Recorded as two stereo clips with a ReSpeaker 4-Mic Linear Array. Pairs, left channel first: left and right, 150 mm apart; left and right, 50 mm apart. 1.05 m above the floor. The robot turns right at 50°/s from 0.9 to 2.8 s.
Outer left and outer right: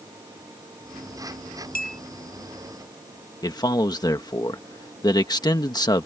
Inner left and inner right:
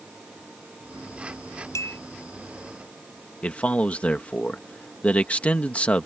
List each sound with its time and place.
1.8 s a clink: 80° left; by 2.0 s 65° left (ahead or behind)
3.4 s a man speaking: 25° left (ahead or behind)